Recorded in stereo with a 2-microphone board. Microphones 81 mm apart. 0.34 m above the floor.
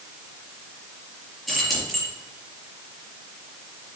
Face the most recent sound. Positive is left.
turn(degrees=-5)  # may be behind; listen again after turning